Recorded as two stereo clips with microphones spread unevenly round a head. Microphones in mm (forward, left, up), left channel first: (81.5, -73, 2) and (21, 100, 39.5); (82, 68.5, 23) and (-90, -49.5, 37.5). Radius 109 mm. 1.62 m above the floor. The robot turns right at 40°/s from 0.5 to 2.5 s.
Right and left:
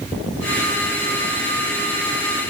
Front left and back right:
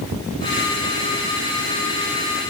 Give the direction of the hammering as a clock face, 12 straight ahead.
I don't hear hammering.